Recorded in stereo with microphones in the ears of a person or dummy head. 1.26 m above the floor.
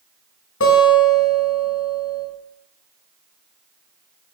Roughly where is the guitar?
Left.